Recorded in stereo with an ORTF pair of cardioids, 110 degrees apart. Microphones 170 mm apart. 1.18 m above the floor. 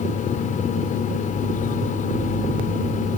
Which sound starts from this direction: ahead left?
A fan, at 0.0 s.